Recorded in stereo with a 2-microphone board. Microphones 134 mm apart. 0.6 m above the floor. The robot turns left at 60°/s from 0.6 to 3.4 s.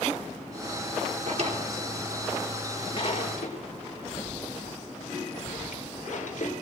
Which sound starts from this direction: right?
A drawer, at 1.3 s.